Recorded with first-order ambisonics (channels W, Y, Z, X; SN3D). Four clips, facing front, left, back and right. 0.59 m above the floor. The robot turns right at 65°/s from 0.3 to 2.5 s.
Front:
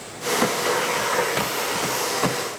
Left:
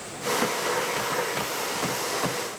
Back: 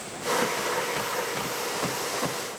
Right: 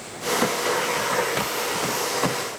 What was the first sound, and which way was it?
Only background noise.